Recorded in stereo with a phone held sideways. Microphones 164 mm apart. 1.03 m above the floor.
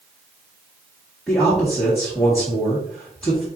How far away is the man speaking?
About 1.8 m.